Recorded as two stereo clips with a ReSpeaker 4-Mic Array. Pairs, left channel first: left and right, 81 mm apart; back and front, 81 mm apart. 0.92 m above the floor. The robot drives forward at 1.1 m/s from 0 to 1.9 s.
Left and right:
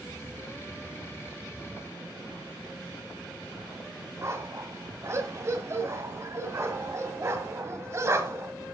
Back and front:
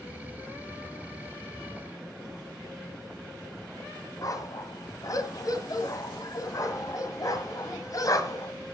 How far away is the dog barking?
About 1.7 m.